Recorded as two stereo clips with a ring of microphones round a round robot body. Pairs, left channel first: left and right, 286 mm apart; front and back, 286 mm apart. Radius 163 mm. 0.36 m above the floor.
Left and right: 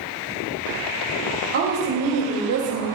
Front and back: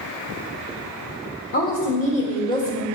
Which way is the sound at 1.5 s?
50° right.